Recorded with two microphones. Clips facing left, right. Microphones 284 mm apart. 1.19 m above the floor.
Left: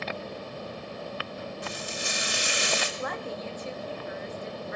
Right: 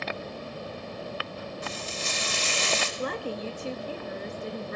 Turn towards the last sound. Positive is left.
turn(degrees=-40)  # may be behind; listen again after turning